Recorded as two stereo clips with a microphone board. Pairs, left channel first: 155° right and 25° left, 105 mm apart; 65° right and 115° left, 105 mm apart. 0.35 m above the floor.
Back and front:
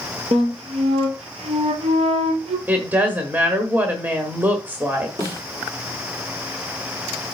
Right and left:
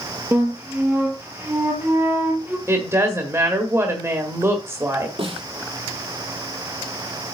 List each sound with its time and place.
0.3 s a flute: 40° left, 1.7 m
2.7 s a woman speaking: 80° left, 1.4 m
5.2 s a snare drum: 80° left, 4.5 m